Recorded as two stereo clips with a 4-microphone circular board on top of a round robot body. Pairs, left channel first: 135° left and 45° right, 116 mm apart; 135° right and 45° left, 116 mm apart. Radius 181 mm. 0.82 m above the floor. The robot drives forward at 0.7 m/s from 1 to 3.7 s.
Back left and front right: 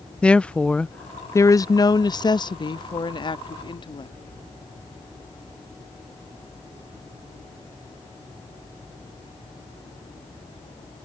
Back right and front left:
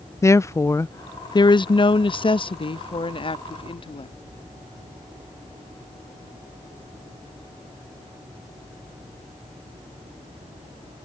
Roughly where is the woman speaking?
Behind right.